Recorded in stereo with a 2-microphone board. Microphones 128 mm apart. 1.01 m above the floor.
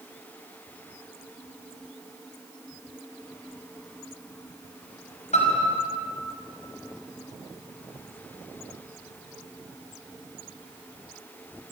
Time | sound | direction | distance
5.3 | a piano | 65° left (ahead or behind) | 5 m